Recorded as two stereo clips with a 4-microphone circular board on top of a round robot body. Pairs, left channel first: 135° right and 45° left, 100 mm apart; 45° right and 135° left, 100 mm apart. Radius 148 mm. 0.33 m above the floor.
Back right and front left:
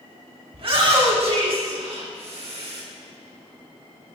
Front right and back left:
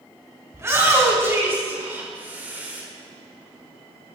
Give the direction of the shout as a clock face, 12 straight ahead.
10 o'clock.